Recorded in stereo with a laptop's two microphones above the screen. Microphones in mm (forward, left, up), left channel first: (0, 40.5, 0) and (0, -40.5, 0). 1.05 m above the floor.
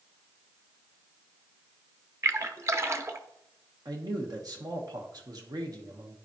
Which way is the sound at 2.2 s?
35° right (ahead or behind).